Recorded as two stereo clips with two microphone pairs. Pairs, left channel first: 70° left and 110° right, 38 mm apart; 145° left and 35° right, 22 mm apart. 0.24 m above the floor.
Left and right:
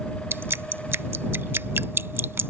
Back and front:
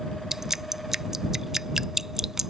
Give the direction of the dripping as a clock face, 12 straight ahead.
4 o'clock.